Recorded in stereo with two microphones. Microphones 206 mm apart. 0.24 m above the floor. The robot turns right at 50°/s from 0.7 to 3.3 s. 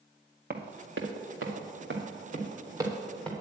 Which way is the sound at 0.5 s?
50° right (ahead or behind).